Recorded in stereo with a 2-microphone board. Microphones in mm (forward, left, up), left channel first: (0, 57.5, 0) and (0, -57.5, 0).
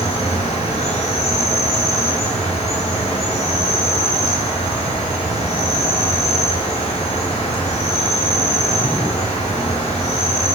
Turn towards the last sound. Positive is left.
turn(degrees=65)  # may be behind; listen again after turning